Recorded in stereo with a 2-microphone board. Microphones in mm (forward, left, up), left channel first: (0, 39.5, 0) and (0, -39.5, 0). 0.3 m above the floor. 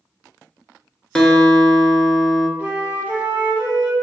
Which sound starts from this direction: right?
A flute, at 2.6 s.